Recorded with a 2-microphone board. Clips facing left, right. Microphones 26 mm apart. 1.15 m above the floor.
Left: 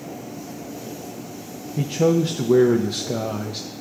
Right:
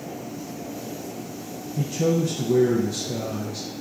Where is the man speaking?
55° left (ahead or behind), 0.5 m.